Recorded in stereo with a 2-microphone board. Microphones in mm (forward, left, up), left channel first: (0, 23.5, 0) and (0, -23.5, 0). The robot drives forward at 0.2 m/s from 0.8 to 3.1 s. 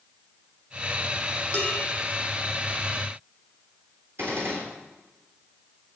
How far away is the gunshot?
About 3.5 m.